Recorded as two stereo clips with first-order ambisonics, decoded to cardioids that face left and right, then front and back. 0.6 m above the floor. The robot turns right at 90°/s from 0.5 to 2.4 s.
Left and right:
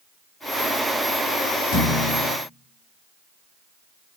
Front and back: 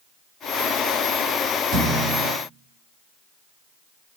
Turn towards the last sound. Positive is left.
turn(degrees=-175)